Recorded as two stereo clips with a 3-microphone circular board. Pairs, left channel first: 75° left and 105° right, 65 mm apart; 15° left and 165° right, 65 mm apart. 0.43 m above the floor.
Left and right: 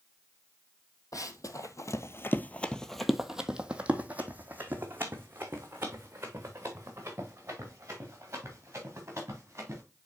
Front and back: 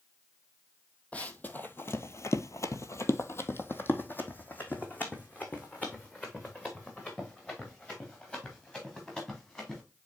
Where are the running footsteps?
80° left, 1.0 m; by 9.8 s 60° right, 4.5 m.